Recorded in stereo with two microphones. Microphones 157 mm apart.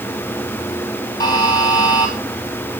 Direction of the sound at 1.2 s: 25° left (ahead or behind).